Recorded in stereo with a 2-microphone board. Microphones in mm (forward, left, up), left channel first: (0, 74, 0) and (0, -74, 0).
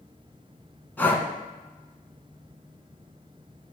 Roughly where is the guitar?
I don't hear a guitar.